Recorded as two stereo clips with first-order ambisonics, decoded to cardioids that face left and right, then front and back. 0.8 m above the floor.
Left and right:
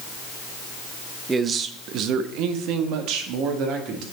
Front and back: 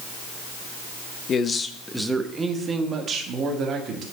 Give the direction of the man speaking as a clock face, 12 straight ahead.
1 o'clock.